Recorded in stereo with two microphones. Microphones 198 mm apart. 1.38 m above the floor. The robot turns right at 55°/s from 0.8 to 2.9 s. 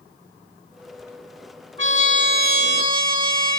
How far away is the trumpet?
About 3 m.